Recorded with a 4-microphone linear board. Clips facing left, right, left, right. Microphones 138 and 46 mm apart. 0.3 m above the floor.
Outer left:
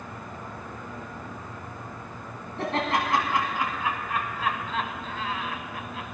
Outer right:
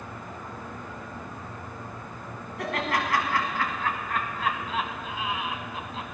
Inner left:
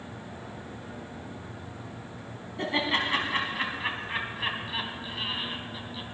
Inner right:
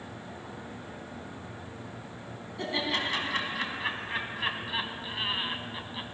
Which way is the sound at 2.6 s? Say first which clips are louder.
Outer left 2 dB, inner left 3 dB; 30° left (ahead or behind).